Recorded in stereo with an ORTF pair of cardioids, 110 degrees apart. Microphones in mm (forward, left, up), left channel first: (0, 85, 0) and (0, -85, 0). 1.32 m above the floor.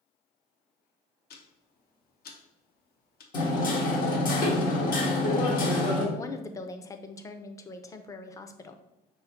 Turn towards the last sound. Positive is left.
turn(degrees=20)